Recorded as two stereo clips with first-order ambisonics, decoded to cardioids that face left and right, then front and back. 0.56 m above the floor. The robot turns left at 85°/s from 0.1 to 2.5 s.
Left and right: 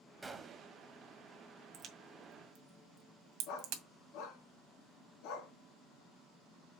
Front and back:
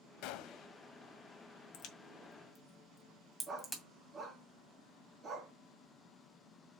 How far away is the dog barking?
About 2 m.